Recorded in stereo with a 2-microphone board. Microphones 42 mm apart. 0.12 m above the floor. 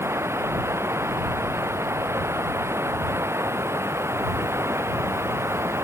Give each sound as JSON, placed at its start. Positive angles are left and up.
{"t": 0.0, "sound": "running water", "side_deg": -85}